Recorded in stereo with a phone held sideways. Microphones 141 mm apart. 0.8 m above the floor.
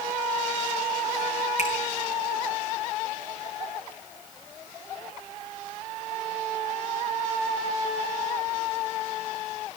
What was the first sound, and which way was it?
A finger snap, 55° left (ahead or behind).